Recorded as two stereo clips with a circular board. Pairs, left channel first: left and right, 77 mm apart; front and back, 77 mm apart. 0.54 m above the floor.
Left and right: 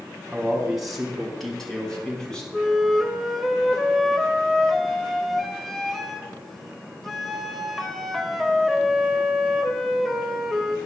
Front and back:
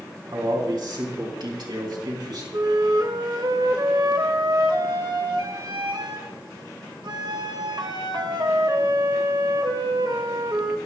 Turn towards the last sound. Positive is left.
turn(degrees=175)